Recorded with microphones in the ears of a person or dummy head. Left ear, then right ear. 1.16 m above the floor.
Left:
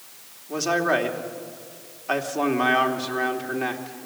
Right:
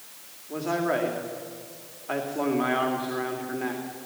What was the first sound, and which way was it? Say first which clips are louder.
A man speaking: left 5 dB; 80° left.